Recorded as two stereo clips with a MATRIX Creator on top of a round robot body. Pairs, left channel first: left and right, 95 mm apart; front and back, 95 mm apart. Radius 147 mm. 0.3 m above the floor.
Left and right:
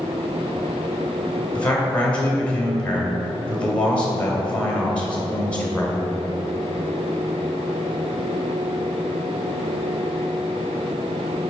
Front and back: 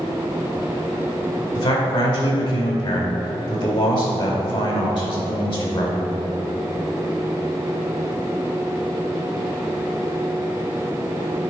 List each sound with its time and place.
1.6 s a man speaking: 15° left, 2.5 m